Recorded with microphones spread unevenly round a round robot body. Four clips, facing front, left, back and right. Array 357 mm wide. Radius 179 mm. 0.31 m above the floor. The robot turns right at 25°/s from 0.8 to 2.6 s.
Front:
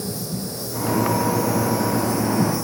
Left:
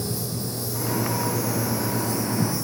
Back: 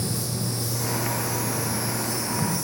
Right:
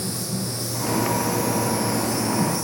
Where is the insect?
Straight ahead, 1.3 m; by 2.6 s 45° left, 1.3 m.